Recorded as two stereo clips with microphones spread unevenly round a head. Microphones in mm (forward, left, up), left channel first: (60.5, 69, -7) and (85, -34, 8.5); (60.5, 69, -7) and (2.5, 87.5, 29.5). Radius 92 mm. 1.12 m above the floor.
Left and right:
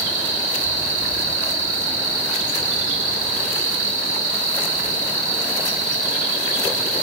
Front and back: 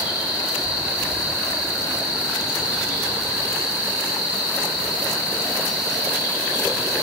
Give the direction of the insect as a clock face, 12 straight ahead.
3 o'clock.